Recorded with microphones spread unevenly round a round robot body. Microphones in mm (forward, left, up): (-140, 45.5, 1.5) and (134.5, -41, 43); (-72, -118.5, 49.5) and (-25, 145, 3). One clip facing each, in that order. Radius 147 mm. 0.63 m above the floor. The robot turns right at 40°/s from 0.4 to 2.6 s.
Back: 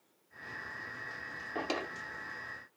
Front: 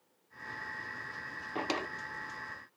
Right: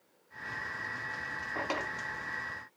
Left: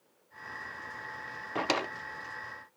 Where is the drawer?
55° left, 0.6 m; by 1.9 s 70° left, 0.6 m.